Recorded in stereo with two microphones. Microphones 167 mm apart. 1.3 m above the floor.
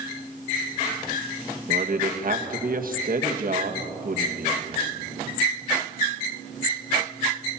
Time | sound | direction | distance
1.7 | a man speaking | 60° right (ahead or behind) | 1.7 m